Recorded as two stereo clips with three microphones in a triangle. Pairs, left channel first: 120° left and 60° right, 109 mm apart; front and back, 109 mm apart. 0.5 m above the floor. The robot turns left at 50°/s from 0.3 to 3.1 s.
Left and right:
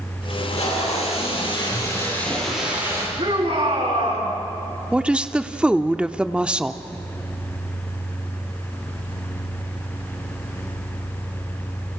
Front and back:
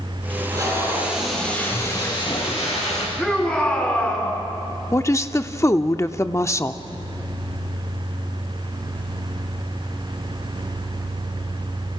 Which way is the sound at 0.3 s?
140° left.